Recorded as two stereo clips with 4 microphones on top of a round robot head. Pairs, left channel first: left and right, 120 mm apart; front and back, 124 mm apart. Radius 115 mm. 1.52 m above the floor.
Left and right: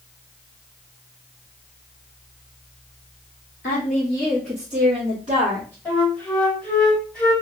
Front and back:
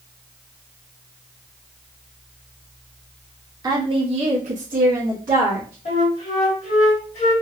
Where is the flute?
15° left, 1.6 m.